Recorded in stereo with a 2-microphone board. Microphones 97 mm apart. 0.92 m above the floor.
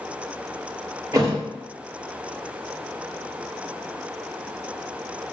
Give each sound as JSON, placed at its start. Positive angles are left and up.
{"t": 1.1, "sound": "a thud", "side_deg": -35, "distance_m": 0.8}